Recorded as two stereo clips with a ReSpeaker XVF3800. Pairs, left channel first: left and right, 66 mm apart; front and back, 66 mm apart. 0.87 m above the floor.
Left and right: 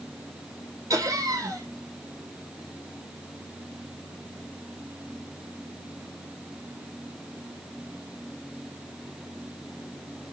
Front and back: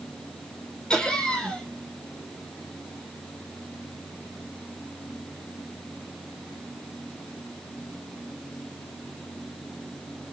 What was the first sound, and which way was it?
Laughter, 75° right.